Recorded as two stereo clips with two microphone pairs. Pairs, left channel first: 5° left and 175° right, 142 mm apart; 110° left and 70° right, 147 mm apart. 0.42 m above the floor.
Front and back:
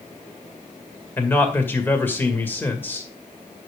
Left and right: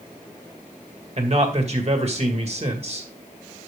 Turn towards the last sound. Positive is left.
turn(degrees=-70)